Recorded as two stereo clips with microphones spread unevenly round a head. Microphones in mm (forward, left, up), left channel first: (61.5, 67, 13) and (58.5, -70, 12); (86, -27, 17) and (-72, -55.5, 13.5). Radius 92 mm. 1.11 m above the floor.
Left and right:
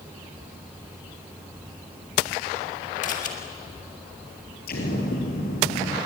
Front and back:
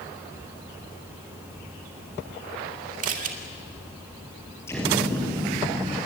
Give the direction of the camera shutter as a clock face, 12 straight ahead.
7 o'clock.